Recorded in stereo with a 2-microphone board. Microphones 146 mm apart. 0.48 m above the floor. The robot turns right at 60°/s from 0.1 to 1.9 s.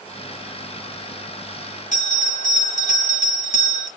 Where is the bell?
60° left (ahead or behind), 1.2 m.